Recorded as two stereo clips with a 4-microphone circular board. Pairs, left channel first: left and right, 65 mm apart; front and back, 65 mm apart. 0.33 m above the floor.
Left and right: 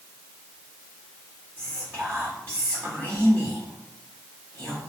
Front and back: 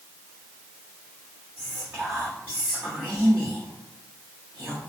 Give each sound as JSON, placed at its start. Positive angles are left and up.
{"t": 1.6, "sound": "whispering", "azimuth_deg": -100, "distance_m": 1.9}